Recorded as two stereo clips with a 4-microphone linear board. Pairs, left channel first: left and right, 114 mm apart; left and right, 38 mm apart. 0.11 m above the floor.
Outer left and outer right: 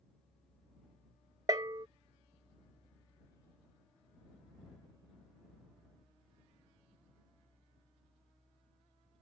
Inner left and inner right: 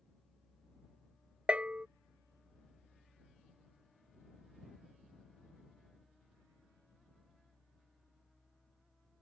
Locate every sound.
1.5 s a bell: 35° right (ahead or behind)